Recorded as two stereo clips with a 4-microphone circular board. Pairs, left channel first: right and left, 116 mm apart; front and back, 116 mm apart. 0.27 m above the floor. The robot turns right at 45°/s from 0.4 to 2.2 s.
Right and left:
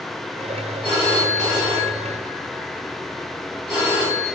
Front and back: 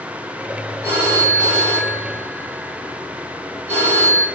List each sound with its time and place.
0.8 s a phone ringing: 115° left, 1.7 m; by 4.2 s 175° left, 1.7 m